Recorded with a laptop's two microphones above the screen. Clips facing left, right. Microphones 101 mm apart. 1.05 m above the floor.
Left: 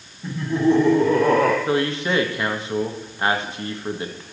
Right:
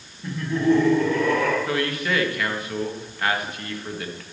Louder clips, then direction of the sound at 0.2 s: Left 2 dB; 5° left (ahead or behind).